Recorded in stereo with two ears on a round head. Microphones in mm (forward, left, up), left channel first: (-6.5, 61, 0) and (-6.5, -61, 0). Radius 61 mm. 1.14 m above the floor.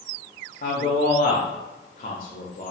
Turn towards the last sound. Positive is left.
turn(degrees=65)  # may be behind; listen again after turning